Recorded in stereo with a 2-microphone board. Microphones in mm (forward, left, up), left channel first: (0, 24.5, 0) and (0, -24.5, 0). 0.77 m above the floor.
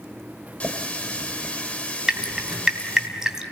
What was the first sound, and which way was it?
A running tap, 25° left (ahead or behind).